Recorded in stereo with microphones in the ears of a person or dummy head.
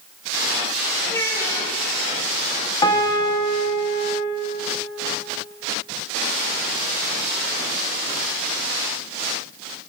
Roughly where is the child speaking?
Centre.